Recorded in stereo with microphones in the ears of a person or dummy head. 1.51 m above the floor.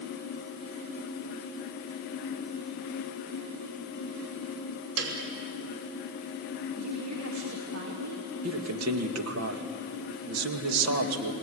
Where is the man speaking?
80° right, 2 m.